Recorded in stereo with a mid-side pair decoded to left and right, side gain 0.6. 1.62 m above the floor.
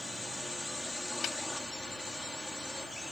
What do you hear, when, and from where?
0.0 s a drone: 5° left
1.2 s a snare drum: 50° left